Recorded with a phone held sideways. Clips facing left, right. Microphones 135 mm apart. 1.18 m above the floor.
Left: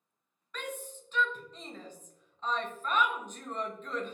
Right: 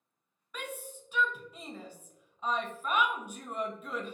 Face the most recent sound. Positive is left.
turn(degrees=-10)  # may be behind; listen again after turning